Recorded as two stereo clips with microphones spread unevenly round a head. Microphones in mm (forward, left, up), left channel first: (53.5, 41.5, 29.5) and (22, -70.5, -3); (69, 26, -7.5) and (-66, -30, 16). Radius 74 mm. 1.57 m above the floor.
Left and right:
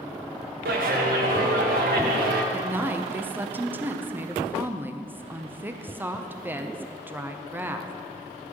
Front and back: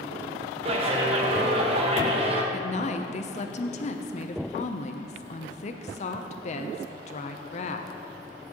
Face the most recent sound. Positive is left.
turn(degrees=-25)